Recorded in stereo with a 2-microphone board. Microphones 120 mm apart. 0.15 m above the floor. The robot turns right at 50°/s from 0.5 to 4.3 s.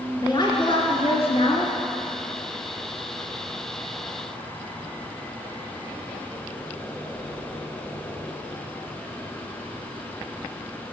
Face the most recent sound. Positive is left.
turn(degrees=-120)